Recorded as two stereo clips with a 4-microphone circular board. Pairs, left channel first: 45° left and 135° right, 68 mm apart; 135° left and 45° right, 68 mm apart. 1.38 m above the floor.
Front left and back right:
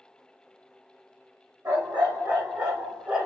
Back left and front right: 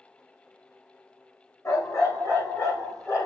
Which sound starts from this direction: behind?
A dog barking, at 1.6 s.